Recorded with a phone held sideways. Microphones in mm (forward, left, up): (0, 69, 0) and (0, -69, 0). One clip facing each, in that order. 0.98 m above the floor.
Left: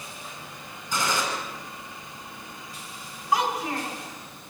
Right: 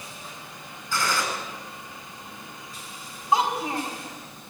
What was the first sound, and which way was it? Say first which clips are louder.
A gunshot: even; 15° left (ahead or behind).